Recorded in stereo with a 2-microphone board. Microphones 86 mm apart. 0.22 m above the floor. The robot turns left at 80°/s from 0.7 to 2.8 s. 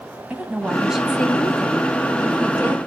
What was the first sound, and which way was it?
A woman speaking, 150° right.